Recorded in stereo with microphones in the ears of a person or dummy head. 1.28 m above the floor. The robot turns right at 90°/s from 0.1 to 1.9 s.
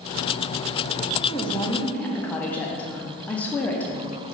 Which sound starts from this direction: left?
A woman speaking, at 1.3 s.